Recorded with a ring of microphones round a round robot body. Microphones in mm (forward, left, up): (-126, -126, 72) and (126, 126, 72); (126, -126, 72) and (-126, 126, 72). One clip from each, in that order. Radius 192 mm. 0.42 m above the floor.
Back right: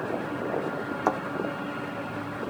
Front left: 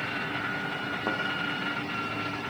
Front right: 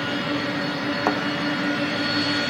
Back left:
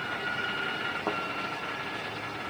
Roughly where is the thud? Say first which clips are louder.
Back right 5 dB, front right 9 dB; right.